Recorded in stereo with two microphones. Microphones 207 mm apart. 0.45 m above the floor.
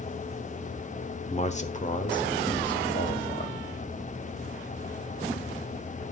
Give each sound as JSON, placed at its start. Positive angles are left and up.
{"t": 1.3, "sound": "a man speaking", "side_deg": 30, "distance_m": 0.9}